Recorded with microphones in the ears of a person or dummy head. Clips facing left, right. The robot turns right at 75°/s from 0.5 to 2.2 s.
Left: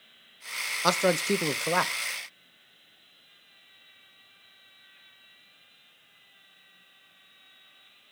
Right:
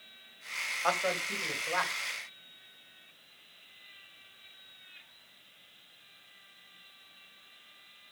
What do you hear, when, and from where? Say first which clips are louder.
0.8 s a man speaking: left 8 dB; 50° left, 0.9 m; by 1.9 s 130° left, 0.9 m